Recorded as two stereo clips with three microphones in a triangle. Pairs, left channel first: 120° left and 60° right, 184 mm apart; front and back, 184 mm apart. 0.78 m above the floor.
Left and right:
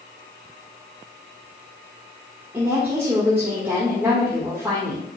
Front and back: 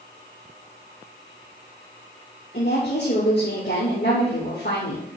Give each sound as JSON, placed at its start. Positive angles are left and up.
{"t": 2.5, "sound": "a woman speaking", "azimuth_deg": 20, "distance_m": 2.5}